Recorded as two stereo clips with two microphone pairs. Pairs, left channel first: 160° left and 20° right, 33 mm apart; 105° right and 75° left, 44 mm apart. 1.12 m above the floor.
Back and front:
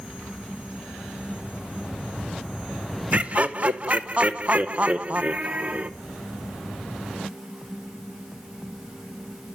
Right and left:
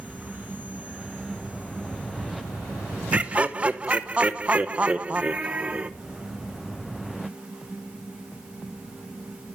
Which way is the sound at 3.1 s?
20° left.